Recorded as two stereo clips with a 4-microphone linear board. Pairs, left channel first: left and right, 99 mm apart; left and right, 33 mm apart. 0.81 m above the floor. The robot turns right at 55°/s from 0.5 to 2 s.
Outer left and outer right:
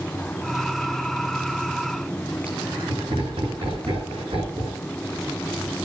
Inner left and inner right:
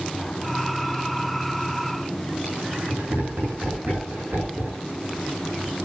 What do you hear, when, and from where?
2.5 s laughter: 70° right (ahead or behind), 9.5 m